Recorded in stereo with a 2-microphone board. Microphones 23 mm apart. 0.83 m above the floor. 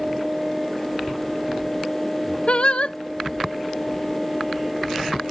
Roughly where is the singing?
Left.